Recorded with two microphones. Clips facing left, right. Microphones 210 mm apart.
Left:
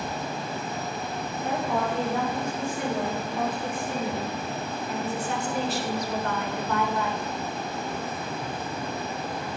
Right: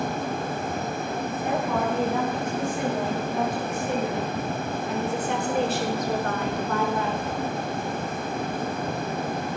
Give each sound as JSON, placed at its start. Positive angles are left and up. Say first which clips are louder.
{"t": 1.4, "sound": "a woman speaking", "louder": "right 1 dB", "side_deg": -80, "distance_m": 9.0}